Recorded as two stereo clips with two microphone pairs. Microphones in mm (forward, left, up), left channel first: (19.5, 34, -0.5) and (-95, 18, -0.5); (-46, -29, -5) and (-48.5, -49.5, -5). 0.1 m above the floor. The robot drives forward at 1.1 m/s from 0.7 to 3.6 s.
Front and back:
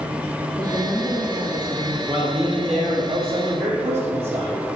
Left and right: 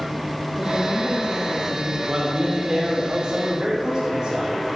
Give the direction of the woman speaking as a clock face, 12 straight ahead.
10 o'clock.